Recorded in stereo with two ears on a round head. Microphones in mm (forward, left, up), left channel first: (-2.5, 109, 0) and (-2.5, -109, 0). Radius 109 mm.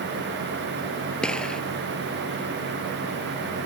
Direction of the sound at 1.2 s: 5° left (ahead or behind).